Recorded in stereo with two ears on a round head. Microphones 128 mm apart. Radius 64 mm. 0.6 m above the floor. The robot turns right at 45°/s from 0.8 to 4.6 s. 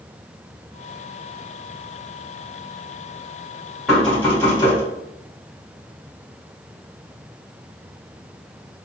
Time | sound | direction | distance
3.9 | knocking | straight ahead | 1.8 m